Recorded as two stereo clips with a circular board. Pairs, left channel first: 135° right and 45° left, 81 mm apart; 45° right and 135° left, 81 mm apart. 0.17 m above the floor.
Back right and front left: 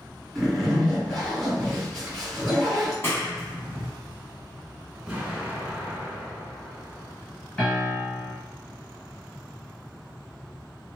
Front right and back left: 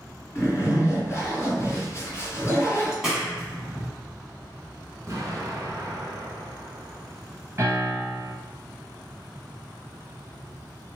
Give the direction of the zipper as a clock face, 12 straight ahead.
2 o'clock.